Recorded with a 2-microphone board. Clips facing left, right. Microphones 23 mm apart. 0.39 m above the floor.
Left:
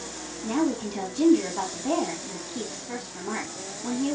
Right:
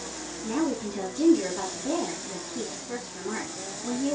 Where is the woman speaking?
35° left (ahead or behind), 3.5 m.